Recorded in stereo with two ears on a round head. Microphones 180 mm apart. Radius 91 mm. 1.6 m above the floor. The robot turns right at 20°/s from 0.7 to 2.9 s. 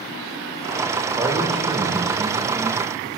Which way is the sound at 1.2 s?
175° right.